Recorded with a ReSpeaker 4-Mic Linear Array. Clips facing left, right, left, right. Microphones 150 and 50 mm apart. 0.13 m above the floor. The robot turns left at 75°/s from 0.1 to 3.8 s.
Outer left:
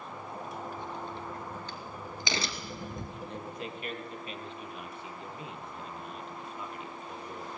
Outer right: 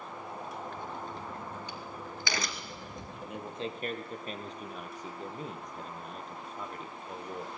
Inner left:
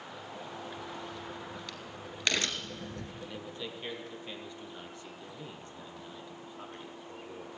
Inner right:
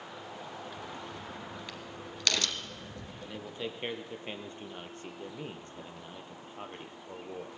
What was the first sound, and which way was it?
A crack, 55° right (ahead or behind).